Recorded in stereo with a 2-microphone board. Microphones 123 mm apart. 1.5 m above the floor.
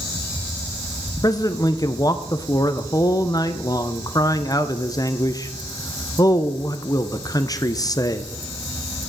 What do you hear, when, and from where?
1.2 s a man speaking: 30° left (ahead or behind), 0.6 m